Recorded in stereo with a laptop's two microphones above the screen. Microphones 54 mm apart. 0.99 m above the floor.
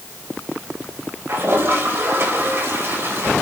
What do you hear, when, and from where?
1.3 s a toilet flushing: 50° right (ahead or behind), 4.5 m